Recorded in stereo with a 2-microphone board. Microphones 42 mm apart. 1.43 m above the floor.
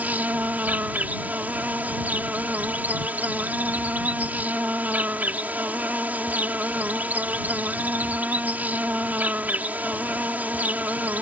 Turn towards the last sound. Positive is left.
turn(degrees=-40)  # may be behind; listen again after turning